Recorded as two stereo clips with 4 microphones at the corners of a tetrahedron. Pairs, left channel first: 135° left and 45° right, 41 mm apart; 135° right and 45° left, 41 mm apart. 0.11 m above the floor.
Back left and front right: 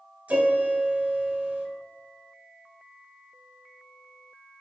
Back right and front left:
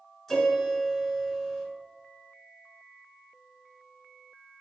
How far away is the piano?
About 1.2 m.